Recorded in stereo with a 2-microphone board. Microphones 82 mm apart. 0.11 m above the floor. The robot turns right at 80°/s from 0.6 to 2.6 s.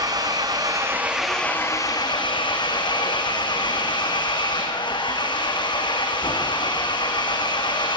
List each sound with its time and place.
0.0 s an engine running: 55° right, 3.5 m; by 8.0 s 105° left, 3.5 m